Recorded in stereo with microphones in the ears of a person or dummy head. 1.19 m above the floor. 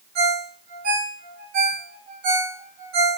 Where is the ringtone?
50° right (ahead or behind), 1.6 m.